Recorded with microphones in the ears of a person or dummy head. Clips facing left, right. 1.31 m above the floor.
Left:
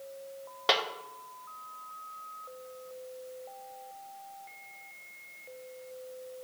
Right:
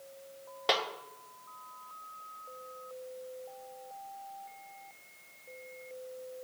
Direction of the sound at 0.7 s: 5° left (ahead or behind).